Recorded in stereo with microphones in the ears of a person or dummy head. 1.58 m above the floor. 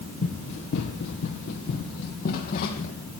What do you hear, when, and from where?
0.2 s running footsteps: 50° left (ahead or behind), 2.5 m; by 2.9 s 55° left (ahead or behind), 3.5 m